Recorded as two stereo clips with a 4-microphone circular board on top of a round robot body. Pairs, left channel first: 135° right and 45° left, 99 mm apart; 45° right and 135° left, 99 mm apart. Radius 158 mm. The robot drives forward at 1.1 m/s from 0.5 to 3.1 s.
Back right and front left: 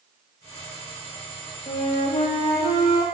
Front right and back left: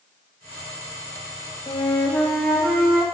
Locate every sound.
1.7 s a flute: 95° right, 1.2 m; by 3.0 s 145° right, 2 m